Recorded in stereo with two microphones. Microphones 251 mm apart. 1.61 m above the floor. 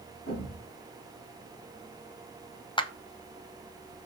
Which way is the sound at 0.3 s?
70° left (ahead or behind).